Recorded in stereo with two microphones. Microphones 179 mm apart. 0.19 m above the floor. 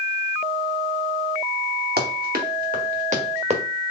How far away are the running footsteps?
About 1.8 m.